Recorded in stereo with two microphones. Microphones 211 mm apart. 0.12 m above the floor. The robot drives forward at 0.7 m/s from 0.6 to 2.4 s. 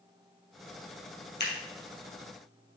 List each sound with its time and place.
1.4 s scissors: 55° left (ahead or behind), 2.5 m